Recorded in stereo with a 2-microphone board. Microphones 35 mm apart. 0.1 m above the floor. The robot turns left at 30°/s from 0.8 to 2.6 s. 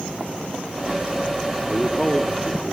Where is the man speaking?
5° left (ahead or behind), 3 m; by 2.7 s 25° left (ahead or behind), 3 m.